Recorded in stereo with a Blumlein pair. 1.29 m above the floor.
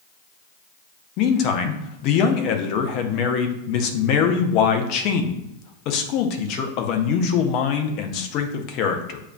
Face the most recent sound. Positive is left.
turn(degrees=40)